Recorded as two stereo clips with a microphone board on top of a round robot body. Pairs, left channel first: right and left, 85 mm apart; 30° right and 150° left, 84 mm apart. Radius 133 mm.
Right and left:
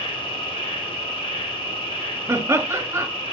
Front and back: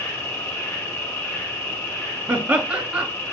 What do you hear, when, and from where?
0.0 s an insect: 95° right, 1.2 m
2.3 s laughter: 90° left, 1.3 m